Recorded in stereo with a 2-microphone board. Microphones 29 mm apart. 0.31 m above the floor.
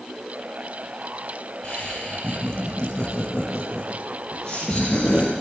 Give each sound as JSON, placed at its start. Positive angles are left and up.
{"t": 1.6, "sound": "laughter", "side_deg": 30, "distance_m": 9.5}